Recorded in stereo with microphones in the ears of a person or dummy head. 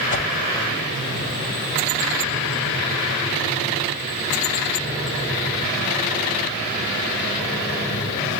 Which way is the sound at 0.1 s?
35° left (ahead or behind).